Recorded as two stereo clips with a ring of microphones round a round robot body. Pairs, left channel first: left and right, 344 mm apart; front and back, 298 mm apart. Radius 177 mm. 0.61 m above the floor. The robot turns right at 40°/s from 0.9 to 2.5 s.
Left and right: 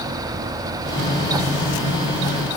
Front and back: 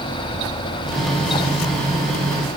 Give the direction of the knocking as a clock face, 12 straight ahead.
No knocking in this recording.